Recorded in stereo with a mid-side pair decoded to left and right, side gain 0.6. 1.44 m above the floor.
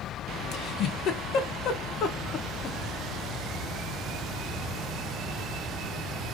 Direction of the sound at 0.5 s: 55° left.